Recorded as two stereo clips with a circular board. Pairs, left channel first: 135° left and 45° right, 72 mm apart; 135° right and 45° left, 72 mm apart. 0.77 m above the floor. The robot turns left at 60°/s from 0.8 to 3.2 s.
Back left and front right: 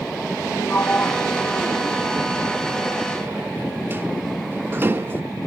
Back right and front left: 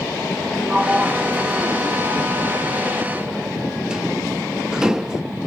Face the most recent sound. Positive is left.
turn(degrees=-30)